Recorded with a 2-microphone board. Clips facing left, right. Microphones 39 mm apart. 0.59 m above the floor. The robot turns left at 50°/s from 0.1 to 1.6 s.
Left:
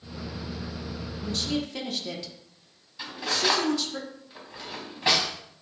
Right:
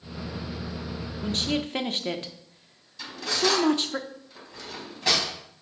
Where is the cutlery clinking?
20° left (ahead or behind), 2 m.